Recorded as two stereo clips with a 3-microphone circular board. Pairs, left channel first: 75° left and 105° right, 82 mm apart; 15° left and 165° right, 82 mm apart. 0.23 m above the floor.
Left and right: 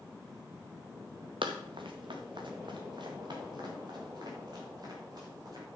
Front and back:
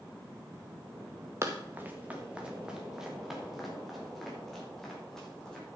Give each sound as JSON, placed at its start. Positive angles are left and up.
{"t": 1.4, "sound": "running footsteps", "azimuth_deg": -110, "distance_m": 1.8}